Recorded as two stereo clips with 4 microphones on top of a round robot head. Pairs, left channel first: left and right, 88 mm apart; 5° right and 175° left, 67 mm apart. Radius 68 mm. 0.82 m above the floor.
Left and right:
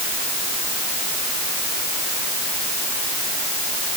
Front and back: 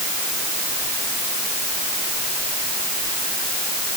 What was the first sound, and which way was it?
Only background noise.